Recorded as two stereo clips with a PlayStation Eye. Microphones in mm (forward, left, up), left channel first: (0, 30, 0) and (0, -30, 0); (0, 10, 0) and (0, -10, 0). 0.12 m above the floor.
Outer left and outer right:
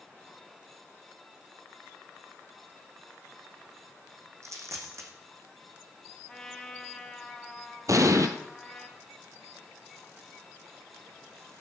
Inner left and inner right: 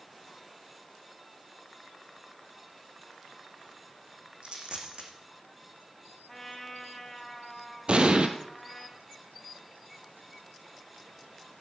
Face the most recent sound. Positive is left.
turn(degrees=-65)  # may be behind; listen again after turning